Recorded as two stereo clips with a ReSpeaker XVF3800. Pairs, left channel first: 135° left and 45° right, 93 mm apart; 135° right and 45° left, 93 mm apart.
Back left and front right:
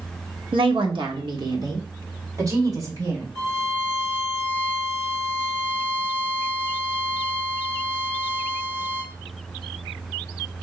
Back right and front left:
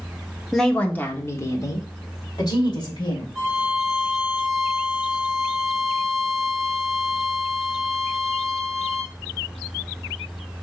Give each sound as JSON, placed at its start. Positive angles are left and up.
{"t": 0.5, "sound": "a woman speaking", "azimuth_deg": -45, "distance_m": 1.0}
{"t": 3.4, "sound": "a violin", "azimuth_deg": -25, "distance_m": 2.5}